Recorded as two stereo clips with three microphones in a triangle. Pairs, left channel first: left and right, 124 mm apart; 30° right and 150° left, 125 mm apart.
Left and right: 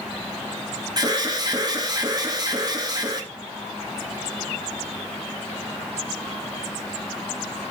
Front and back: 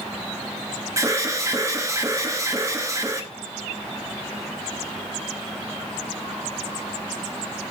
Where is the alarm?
145° right, 1.8 m.